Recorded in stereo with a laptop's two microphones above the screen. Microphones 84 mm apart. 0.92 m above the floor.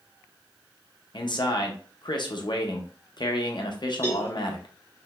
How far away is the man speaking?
About 0.6 m.